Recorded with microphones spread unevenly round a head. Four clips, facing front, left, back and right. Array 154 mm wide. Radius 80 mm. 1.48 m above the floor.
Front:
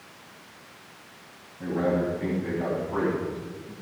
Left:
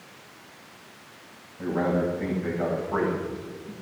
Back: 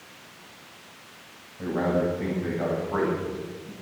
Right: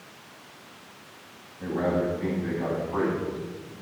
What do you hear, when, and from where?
1.6 s a man speaking: 140° left, 9.5 m; by 3.7 s 130° left, 10 m